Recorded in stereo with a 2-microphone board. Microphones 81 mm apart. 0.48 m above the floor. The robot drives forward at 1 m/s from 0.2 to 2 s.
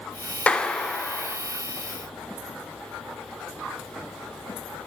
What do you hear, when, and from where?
0.5 s a clap: 15° left (ahead or behind), 0.6 m; by 1.4 s 5° left (ahead or behind), 1.3 m